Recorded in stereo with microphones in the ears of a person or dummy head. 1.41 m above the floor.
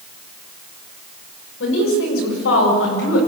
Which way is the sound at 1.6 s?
85° left.